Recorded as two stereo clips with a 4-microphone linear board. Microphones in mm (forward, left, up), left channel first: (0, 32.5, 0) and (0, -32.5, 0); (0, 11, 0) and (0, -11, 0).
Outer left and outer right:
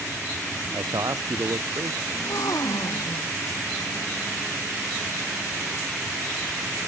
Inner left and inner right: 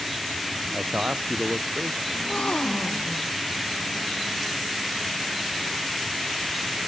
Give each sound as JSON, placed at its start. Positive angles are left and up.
{"t": 0.7, "sound": "a man speaking", "side_deg": -75}
{"t": 2.1, "sound": "a gasp", "side_deg": 65}